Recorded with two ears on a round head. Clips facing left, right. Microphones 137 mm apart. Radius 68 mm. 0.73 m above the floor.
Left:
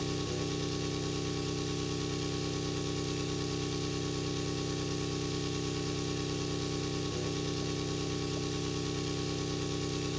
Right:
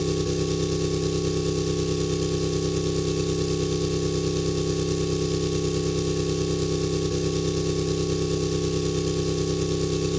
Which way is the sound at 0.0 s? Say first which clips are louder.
Right 10 dB; 60° right (ahead or behind).